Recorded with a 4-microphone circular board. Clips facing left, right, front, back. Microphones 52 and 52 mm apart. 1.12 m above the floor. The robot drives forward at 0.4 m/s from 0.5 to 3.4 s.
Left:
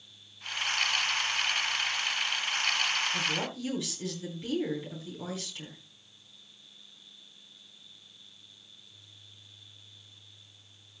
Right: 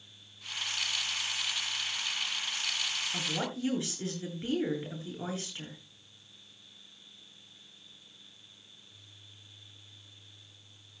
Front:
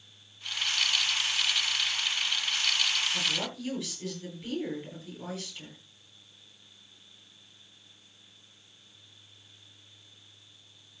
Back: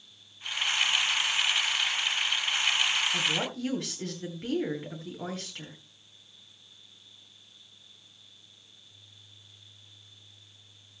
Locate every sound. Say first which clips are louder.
3.1 s a woman speaking: left 3 dB, back 2 dB; 145° right, 8 m